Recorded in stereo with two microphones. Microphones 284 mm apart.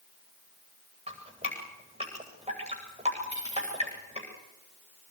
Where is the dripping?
20° right (ahead or behind), 9.5 m.